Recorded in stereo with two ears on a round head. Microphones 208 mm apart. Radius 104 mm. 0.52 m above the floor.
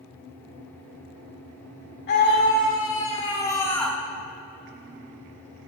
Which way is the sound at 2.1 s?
50° left (ahead or behind).